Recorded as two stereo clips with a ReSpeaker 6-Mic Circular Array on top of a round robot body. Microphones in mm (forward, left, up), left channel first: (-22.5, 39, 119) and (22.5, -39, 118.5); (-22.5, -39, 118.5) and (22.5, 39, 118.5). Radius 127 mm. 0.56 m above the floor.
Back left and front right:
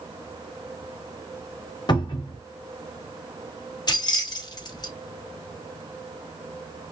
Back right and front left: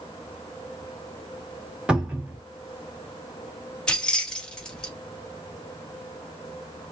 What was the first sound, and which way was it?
A cupboard door, 140° left.